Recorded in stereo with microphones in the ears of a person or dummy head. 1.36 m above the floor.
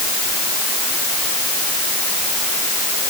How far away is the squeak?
I don't hear a squeak.